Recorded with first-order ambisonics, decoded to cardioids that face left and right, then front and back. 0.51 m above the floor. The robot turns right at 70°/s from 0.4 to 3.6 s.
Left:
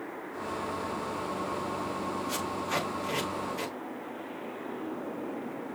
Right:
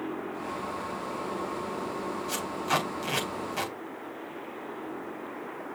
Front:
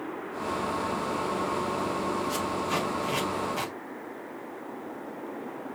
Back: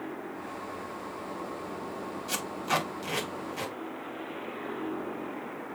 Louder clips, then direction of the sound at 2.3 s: Right 5 dB, front 2 dB; 160° right.